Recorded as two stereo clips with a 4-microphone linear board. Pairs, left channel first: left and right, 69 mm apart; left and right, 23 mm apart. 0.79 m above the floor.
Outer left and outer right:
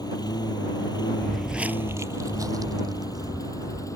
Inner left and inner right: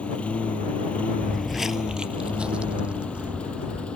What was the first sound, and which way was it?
A lawn mower, 70° left (ahead or behind).